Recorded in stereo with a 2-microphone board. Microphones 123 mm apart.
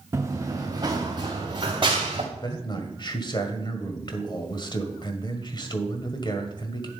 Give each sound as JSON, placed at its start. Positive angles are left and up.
{"t": 0.1, "sound": "running footsteps", "side_deg": -20, "distance_m": 1.8}
{"t": 2.3, "sound": "a man speaking", "side_deg": 40, "distance_m": 1.7}